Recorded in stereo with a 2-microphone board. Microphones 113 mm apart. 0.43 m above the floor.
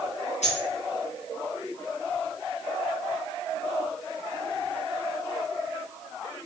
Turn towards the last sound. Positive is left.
turn(degrees=85)